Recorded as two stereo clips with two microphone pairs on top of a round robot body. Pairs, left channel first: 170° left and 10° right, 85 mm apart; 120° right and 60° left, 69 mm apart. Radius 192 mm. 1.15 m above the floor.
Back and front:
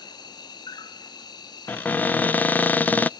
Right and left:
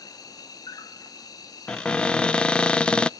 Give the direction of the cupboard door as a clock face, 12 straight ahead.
5 o'clock.